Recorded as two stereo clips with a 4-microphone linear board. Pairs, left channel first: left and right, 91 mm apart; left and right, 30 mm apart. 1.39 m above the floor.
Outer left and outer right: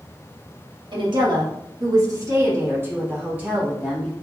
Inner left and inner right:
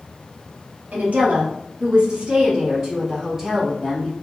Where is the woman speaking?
60° right (ahead or behind), 1.5 m; by 4.1 s 10° right (ahead or behind), 2 m.